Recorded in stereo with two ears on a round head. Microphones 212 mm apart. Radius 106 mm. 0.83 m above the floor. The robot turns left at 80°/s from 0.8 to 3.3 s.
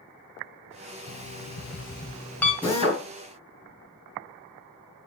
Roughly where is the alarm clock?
Behind left.